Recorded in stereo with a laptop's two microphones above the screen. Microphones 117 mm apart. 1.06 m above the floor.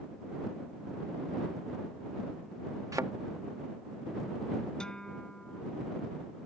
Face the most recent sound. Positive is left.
turn(degrees=5)  # may be behind; listen again after turning